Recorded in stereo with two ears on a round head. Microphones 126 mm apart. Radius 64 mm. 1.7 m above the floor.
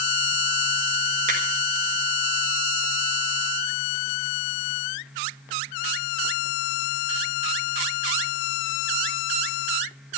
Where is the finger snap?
60° right (ahead or behind), 5 m.